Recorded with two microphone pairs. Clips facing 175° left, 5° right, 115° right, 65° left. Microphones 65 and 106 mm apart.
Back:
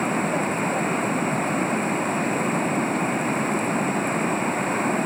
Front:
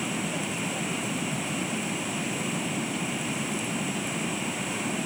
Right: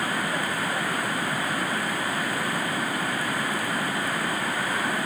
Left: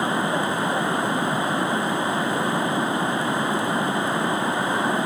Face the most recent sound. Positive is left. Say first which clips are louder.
# back 8 dB, left 5 dB
turn(degrees=130)